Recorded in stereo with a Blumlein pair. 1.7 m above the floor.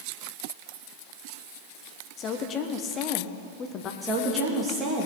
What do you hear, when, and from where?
2.2 s a woman speaking: 30° left, 1.2 m
4.0 s a woman speaking: 15° right, 3 m